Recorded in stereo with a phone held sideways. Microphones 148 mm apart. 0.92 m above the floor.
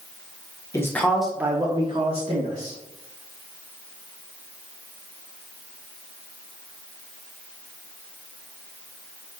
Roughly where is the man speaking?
Left.